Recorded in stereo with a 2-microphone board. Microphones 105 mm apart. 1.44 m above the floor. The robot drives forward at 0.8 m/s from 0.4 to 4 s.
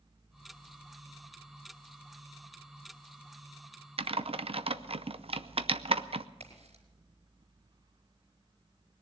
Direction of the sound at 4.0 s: 60° right (ahead or behind).